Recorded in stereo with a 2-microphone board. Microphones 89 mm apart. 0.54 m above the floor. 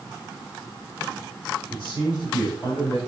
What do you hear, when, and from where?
1.7 s a man speaking: 70° left (ahead or behind), 4.5 m; by 3.0 s 55° left (ahead or behind), 3.5 m